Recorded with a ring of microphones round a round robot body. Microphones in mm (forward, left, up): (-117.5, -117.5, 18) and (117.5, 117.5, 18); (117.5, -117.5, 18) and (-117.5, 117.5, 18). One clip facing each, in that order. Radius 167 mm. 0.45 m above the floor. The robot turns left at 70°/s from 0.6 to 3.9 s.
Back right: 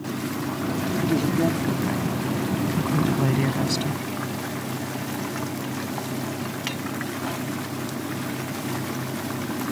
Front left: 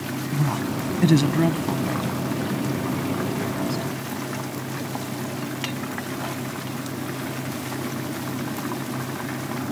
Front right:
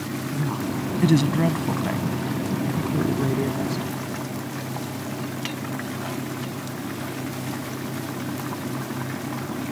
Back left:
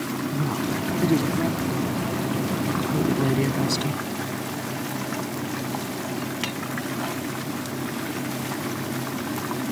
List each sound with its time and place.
0.3 s a woman speaking: 40° left; by 4.0 s 170° left